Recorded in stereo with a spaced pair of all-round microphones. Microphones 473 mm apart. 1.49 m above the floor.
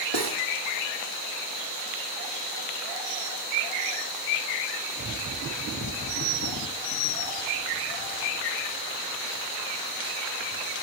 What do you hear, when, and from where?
0.1 s cutlery clinking: 55° right (ahead or behind), 1.4 m